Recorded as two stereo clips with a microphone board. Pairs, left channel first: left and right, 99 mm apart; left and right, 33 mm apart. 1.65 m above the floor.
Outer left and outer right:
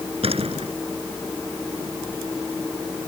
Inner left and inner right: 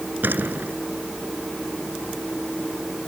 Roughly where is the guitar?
I don't hear a guitar.